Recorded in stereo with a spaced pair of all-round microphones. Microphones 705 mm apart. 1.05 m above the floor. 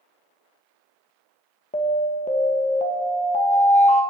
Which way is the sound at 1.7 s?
10° left (ahead or behind).